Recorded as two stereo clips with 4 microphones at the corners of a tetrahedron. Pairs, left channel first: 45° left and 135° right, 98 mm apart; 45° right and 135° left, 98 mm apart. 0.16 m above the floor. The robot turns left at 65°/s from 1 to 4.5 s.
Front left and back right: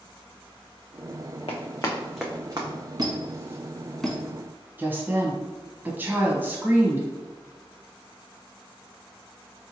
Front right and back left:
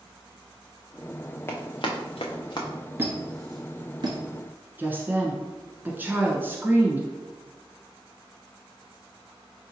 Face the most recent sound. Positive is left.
turn(degrees=180)